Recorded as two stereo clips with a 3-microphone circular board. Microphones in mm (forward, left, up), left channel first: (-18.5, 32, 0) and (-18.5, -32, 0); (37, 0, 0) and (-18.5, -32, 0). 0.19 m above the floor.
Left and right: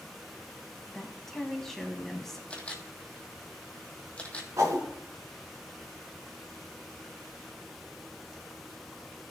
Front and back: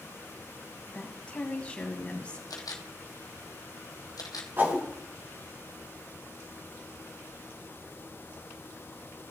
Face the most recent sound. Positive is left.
turn(degrees=-100)